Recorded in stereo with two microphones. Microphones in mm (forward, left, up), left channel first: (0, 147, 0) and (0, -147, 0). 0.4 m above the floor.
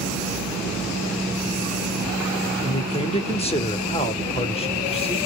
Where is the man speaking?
20° left (ahead or behind), 0.8 m.